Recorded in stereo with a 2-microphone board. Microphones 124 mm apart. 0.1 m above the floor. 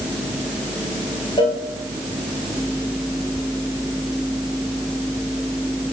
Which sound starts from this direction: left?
A cowbell, at 1.4 s.